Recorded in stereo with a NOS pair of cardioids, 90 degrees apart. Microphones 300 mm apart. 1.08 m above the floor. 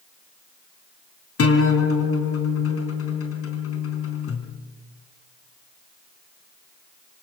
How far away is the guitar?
About 4 m.